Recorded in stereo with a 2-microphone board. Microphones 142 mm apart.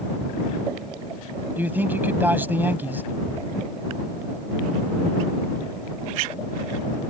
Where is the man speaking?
15° right (ahead or behind).